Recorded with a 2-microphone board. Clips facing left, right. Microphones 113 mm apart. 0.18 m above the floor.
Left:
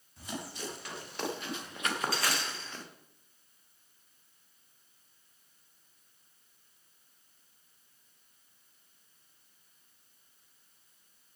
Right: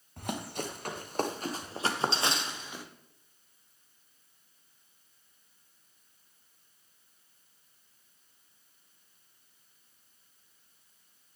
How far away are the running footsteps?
About 4 m.